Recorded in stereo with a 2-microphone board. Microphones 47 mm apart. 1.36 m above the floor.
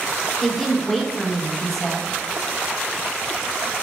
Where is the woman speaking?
5° left (ahead or behind), 0.8 m.